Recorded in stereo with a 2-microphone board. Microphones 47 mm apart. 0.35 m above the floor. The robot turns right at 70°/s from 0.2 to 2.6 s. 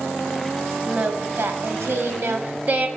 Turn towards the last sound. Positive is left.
turn(degrees=-40)